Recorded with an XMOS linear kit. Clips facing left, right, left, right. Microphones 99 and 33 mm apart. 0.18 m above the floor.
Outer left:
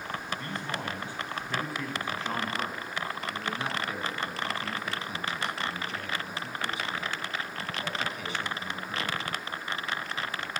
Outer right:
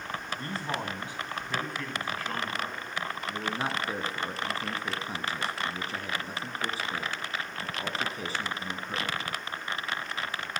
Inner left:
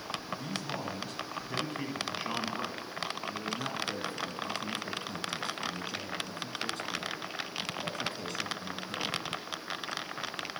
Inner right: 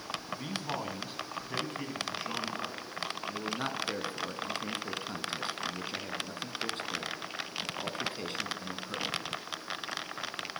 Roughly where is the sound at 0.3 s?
Right.